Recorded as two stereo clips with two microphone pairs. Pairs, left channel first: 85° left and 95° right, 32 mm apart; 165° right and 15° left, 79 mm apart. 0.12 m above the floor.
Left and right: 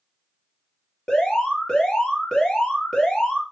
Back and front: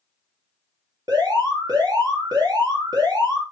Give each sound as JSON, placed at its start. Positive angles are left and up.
{"t": 1.1, "sound": "an alarm", "azimuth_deg": 20, "distance_m": 4.0}